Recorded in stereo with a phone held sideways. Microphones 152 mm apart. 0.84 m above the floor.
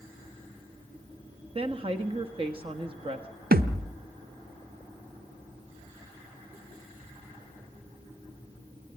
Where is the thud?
80° right, 1.0 m.